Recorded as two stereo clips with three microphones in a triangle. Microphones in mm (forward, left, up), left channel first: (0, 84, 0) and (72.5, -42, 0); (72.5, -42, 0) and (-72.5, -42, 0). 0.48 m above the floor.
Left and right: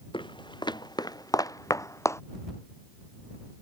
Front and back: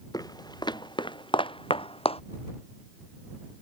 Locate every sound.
0.1 s footsteps: 65° left; by 2.2 s 50° left